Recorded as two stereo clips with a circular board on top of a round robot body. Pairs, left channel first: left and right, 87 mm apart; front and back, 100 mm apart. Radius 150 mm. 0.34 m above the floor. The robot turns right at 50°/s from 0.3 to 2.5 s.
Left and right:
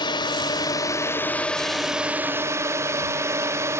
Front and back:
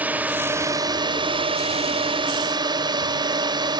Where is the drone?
105° left; by 3.8 s 145° right.